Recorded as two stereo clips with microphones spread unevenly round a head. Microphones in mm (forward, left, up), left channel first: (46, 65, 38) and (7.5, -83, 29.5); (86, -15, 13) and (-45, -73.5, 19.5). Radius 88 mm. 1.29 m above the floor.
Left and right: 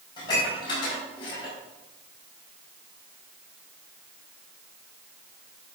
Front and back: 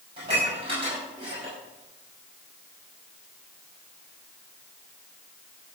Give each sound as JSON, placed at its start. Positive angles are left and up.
{"t": 0.2, "sound": "dishes clattering", "azimuth_deg": 140, "distance_m": 5.0}